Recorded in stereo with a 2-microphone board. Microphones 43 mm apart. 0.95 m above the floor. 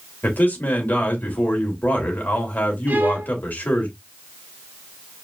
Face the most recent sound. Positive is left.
turn(degrees=-50)  # may be behind; listen again after turning